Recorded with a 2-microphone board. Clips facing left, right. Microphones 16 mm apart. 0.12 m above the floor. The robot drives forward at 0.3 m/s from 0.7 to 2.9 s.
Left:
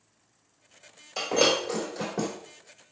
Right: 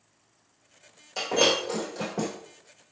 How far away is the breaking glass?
About 2.5 m.